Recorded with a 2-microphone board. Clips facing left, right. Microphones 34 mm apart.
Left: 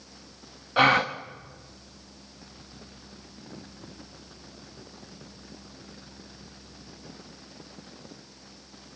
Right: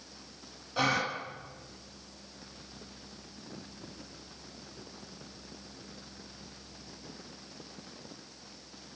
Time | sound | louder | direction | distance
0.8 | a gasp | left 9 dB | 45° left (ahead or behind) | 1.5 m